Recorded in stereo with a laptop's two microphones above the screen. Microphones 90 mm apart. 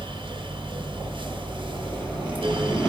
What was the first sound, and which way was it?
A fan, 70° right (ahead or behind).